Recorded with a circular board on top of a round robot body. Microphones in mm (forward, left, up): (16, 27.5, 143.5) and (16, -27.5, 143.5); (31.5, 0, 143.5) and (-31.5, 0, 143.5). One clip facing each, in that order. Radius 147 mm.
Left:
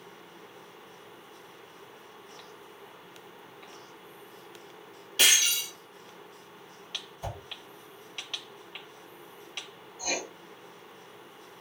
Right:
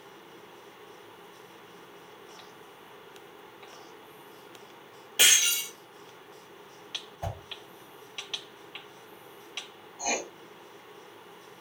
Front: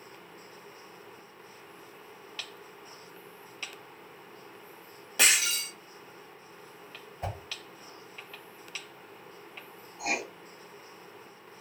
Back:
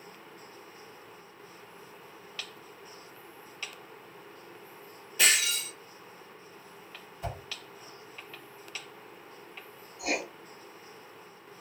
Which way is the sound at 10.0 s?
55° right.